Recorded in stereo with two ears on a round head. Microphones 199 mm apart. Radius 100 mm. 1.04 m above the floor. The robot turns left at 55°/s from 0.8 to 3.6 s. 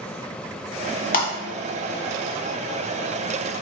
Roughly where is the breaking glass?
Left.